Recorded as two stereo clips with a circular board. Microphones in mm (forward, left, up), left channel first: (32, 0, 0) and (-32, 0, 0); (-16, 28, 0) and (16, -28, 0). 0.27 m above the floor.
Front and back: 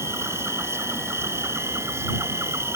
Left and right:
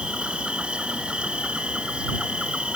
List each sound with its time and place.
0.0 s an insect: 135° right